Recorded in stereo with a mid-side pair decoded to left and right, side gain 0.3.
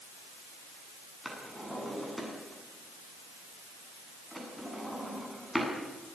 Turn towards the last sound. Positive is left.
turn(degrees=0)